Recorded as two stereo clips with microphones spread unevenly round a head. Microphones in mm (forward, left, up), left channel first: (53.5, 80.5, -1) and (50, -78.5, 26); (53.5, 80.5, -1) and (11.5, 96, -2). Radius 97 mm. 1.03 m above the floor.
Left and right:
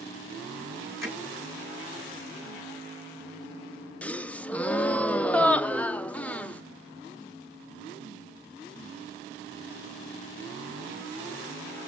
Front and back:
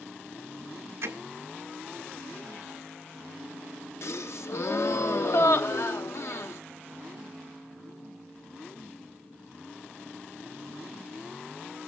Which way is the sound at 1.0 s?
170° right.